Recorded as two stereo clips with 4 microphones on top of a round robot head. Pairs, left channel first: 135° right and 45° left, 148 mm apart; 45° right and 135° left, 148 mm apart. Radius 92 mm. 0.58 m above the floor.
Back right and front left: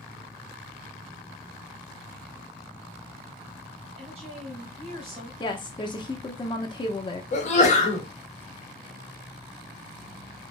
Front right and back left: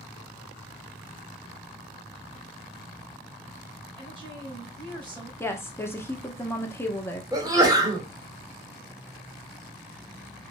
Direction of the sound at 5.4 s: 110° right.